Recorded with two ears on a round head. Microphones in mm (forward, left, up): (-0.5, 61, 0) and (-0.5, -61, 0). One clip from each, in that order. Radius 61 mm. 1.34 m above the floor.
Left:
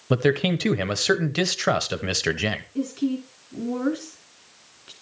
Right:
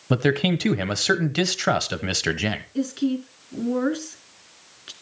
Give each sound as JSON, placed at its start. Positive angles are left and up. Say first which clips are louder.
{"t": 0.1, "sound": "a man speaking", "louder": "even", "side_deg": 0, "distance_m": 0.9}
{"t": 2.8, "sound": "a woman speaking", "louder": "right 1 dB", "side_deg": -30, "distance_m": 3.0}